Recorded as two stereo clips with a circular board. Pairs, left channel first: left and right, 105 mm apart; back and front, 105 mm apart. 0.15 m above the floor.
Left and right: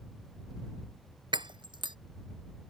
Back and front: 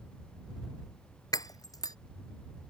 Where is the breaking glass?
130° right.